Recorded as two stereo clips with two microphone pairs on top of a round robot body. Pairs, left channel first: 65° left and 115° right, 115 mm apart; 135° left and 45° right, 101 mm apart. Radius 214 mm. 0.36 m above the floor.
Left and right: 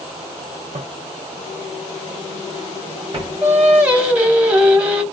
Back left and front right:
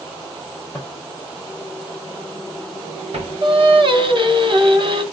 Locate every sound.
0.7 s footsteps: 155° right, 1.1 m; by 3.5 s 60° right, 1.6 m
3.4 s singing: 40° right, 1.8 m